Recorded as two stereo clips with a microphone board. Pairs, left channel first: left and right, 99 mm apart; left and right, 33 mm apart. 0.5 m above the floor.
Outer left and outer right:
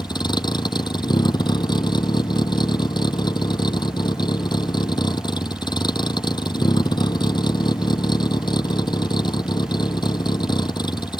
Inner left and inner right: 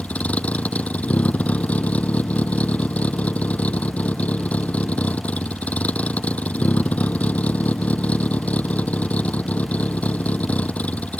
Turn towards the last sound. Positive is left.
turn(degrees=45)  # may be behind; listen again after turning